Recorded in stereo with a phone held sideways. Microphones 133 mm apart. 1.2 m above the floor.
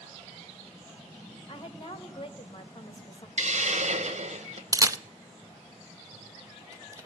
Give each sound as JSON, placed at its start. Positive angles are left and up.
{"t": 1.5, "sound": "a woman speaking", "side_deg": 40, "distance_m": 2.0}
{"t": 3.4, "sound": "a hiss", "side_deg": -60, "distance_m": 1.3}
{"t": 4.7, "sound": "a camera shutter", "side_deg": -25, "distance_m": 0.5}